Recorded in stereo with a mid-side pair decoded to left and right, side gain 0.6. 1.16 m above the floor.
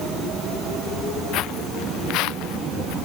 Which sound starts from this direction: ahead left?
Footsteps, at 1.3 s.